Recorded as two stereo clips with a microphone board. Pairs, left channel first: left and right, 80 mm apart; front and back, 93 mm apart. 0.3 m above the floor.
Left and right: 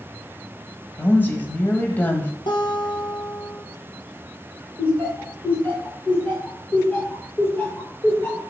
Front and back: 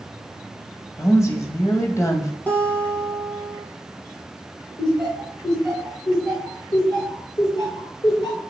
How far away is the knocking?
I don't hear knocking.